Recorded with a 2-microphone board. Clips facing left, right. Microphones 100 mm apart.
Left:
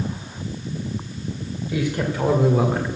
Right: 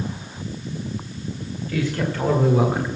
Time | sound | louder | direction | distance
1.7 | a man speaking | even | 20° left (ahead or behind) | 2 m